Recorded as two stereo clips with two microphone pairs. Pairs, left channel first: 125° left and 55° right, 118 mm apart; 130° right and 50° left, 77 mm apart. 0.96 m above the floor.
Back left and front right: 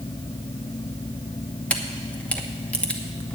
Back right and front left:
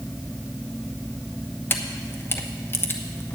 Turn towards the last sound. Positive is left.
turn(degrees=-165)